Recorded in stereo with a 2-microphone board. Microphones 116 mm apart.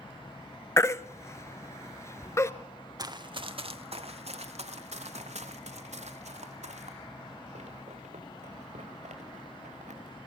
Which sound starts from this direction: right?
Running footsteps, at 3.0 s.